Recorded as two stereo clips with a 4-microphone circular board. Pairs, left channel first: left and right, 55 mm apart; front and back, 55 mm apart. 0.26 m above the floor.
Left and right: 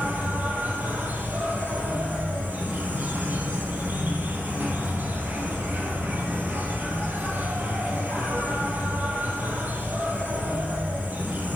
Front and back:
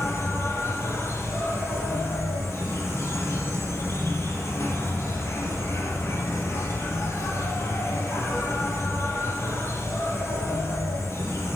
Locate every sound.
0.0 s an insect: 35° right, 3.5 m